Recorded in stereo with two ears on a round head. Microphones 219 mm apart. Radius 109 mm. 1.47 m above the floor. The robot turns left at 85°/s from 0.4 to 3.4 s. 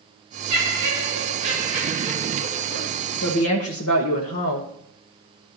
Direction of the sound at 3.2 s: 45° left (ahead or behind).